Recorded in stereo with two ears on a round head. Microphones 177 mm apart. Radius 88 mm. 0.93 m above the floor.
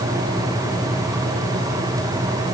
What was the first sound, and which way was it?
Only background noise.